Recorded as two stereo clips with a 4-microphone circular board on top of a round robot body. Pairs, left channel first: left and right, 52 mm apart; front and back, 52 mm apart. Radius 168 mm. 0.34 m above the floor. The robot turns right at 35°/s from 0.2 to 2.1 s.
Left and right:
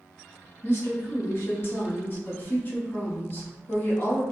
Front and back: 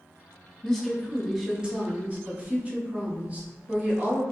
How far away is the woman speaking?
About 1.1 m.